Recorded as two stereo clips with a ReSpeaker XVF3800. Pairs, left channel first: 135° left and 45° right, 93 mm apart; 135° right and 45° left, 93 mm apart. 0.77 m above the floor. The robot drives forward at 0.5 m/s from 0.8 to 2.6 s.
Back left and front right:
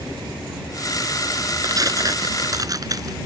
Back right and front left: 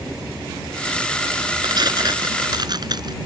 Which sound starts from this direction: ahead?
Tearing paper, at 1.6 s.